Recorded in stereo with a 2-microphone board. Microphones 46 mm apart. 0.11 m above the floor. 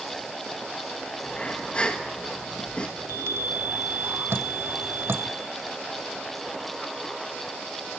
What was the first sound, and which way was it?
Breathing, 25° left (ahead or behind).